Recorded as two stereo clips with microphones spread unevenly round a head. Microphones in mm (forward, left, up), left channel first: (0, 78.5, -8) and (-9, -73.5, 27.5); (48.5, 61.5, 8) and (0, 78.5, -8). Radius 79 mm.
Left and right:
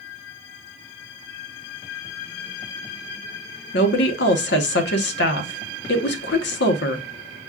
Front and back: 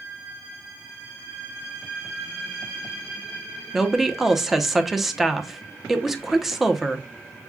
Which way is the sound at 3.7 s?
80° left.